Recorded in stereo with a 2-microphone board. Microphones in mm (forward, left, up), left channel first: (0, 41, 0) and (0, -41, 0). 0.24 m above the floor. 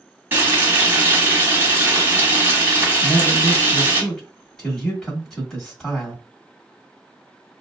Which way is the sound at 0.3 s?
25° right (ahead or behind).